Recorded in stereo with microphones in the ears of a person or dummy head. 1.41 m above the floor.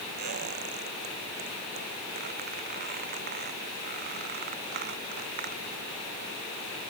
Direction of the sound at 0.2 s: 45° right (ahead or behind).